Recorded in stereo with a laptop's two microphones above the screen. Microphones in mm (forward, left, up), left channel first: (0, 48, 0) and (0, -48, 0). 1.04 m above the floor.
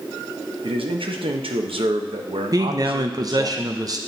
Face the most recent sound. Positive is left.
turn(degrees=-45)  # may be behind; listen again after turning